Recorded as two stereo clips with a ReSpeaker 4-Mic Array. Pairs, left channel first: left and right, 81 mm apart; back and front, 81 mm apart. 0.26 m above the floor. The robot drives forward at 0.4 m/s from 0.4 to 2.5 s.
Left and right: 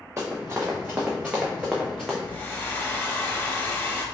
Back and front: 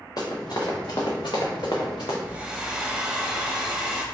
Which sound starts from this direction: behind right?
Running footsteps, at 0.2 s.